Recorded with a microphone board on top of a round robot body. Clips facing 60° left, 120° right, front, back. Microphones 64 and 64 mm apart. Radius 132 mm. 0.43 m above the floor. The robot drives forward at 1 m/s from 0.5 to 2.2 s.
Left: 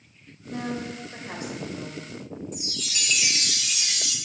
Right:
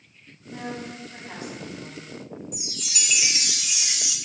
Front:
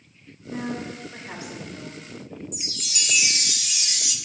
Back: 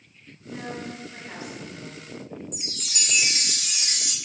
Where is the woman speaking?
55° left, 3.5 m; by 2.0 s 85° left, 3 m.